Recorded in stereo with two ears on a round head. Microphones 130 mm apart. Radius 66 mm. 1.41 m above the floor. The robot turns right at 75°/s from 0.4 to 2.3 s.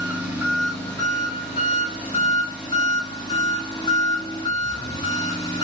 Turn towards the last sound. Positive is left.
turn(degrees=125)